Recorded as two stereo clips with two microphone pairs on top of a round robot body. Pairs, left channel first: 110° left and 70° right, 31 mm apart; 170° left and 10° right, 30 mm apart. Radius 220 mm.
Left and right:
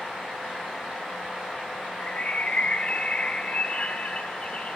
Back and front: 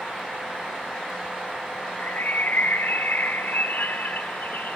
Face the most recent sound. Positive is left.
turn(degrees=160)